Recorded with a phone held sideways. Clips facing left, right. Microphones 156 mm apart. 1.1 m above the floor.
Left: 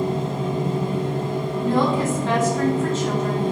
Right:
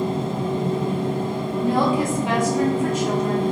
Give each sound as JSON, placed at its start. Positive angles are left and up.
{"t": 0.0, "sound": "a machine running", "side_deg": -55, "distance_m": 1.1}
{"t": 1.6, "sound": "a woman speaking", "side_deg": -10, "distance_m": 0.7}